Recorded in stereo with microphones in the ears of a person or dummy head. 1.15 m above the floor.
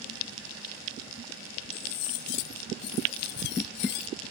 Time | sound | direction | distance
1.7 | cutlery clinking | 55° left (ahead or behind) | ?